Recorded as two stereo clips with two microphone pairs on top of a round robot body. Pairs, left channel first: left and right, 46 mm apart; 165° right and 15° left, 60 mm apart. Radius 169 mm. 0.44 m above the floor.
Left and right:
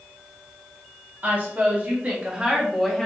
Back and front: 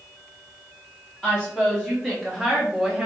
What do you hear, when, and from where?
1.2 s a woman speaking: 90° right, 1.6 m; by 3.1 s 10° left, 1.1 m